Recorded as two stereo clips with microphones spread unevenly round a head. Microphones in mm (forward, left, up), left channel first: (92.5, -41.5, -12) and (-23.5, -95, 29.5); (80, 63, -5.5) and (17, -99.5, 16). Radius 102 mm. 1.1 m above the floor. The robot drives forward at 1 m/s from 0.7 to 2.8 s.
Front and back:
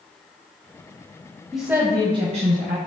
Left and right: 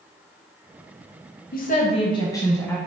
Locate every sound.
1.5 s a woman speaking: 105° left, 1.0 m; by 2.8 s 150° left, 1.8 m